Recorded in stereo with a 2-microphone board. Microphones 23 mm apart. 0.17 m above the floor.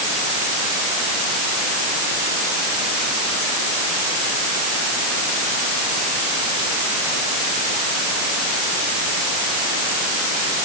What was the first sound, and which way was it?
Only background noise.